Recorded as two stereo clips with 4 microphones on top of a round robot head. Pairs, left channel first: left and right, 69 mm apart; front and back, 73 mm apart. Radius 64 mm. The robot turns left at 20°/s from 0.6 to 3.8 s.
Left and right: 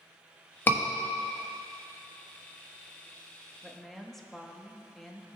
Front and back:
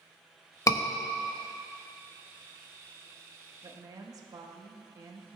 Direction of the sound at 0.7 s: 30° left.